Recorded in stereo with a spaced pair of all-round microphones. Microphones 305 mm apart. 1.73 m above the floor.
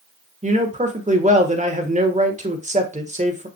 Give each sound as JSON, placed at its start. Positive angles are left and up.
{"t": 0.4, "sound": "a man speaking", "side_deg": -25, "distance_m": 1.4}